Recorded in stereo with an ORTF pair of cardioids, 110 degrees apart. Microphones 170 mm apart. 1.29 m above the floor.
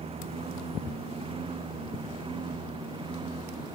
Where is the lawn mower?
35° right; by 3.8 s 30° right.